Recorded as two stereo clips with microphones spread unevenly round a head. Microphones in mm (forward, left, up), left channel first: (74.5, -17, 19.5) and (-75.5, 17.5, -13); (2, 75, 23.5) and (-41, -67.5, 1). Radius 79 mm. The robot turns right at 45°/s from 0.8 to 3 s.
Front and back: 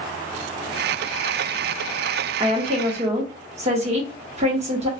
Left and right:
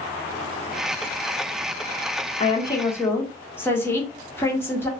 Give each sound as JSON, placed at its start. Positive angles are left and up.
{"t": 2.4, "sound": "a woman speaking", "azimuth_deg": 125, "distance_m": 1.1}